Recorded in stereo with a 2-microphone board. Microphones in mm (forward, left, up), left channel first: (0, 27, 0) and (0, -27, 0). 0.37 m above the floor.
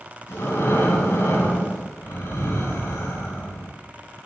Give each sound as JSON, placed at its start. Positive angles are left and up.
{"t": 0.3, "sound": "breathing", "side_deg": 70, "distance_m": 3.5}